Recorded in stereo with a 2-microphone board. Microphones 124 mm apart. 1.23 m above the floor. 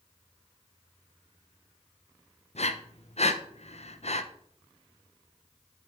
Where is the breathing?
60° left (ahead or behind), 0.7 m.